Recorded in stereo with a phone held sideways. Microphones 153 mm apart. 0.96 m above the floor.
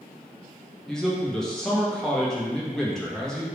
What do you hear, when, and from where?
0.9 s a man speaking: 5° left (ahead or behind), 0.8 m